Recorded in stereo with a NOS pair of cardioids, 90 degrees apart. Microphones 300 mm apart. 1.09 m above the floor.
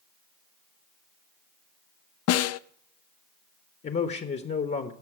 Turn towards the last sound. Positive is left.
turn(degrees=35)